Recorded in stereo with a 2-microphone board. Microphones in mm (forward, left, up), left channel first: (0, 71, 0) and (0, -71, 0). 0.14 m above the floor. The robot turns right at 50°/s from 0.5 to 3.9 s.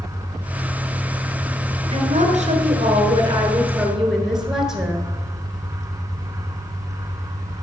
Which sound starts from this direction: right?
A woman speaking, at 1.9 s.